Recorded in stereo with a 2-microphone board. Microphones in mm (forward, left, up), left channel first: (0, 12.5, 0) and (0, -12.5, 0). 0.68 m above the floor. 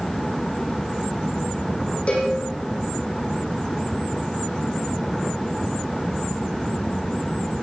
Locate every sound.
2.1 s a cowbell: 50° left (ahead or behind), 8 m